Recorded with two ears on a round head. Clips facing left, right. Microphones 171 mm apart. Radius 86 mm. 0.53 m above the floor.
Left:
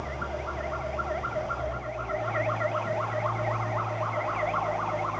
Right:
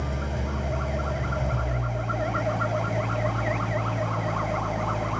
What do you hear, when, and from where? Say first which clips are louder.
0.0 s an engine running: right 2 dB; 80° right, 2.5 m